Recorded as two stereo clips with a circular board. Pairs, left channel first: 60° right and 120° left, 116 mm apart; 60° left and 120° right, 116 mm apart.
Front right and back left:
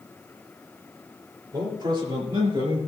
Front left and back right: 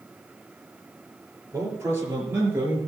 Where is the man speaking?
170° left, 5.5 m; by 2.8 s 165° left, 4.5 m.